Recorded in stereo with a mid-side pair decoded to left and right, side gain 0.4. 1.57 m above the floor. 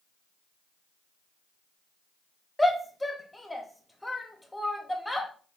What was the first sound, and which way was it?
A shout, 10° left.